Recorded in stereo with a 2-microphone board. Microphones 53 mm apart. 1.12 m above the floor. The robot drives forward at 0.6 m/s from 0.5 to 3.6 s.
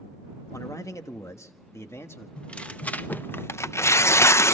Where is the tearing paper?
20° left (ahead or behind), 1.1 m; by 4.5 s 60° left (ahead or behind), 0.5 m.